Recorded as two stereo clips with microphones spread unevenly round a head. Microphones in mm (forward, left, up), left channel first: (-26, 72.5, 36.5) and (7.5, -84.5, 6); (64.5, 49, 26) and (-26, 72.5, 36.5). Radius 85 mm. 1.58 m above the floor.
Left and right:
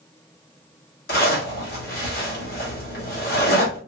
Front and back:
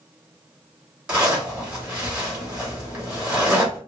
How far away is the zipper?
About 2.5 m.